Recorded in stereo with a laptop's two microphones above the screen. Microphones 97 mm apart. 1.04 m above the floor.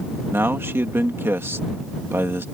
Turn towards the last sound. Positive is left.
turn(degrees=-25)  # may be behind; listen again after turning